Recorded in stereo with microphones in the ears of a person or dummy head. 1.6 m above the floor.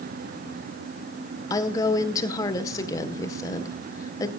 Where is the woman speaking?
15° left (ahead or behind), 1.6 m.